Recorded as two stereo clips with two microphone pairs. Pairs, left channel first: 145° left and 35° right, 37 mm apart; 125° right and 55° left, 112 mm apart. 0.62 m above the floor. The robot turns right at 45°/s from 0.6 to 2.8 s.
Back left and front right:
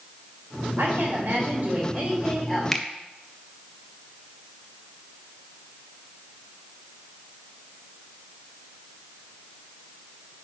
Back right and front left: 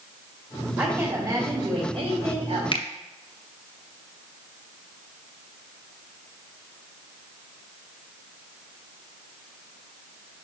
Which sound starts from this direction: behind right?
A finger snap, at 2.7 s.